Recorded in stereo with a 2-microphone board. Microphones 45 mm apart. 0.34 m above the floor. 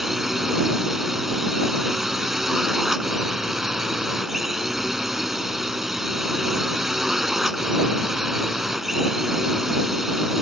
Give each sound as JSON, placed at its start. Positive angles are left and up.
{"t": 0.0, "sound": "a drone", "side_deg": -10}